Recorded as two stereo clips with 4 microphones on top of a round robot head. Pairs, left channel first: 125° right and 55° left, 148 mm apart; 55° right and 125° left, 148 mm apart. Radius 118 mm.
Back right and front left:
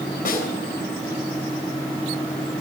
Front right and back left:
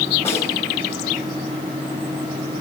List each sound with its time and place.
0.2 s a snare drum: 125° right, 6.5 m